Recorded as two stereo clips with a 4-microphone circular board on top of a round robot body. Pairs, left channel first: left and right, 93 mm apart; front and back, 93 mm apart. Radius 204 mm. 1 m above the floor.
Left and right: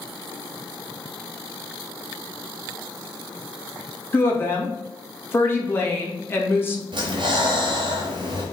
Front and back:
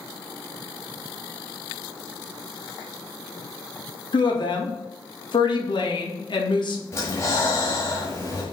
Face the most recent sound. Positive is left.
turn(degrees=-60)